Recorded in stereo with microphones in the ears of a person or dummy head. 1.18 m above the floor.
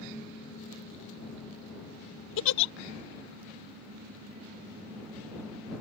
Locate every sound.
2.4 s a giggle: 75° left (ahead or behind)